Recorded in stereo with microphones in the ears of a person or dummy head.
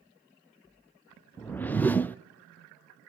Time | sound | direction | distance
1.4 | a whoosh | 5° left (ahead or behind) | 0.5 m